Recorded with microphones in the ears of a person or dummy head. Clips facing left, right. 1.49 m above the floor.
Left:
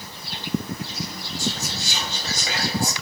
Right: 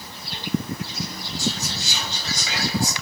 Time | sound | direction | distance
1.4 | whispering | 45° left (ahead or behind) | 2.5 m